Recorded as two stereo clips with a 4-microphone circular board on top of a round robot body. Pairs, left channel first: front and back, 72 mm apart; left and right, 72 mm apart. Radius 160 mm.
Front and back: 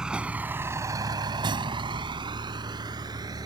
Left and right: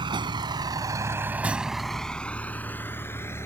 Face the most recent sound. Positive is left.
turn(degrees=150)